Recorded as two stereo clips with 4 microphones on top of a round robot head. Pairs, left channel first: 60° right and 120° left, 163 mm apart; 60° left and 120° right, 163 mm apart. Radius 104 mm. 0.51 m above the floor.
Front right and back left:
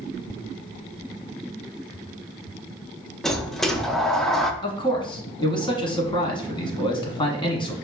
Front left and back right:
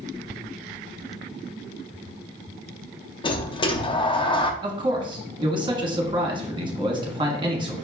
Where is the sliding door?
30° left, 0.5 m.